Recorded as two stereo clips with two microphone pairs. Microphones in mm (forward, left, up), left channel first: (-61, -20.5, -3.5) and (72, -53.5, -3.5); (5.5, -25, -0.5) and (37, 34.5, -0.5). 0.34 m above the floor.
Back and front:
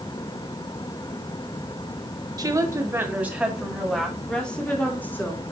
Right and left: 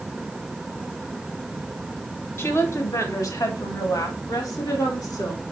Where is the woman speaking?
70° right, 2.0 m; by 5.4 s 120° right, 3.5 m.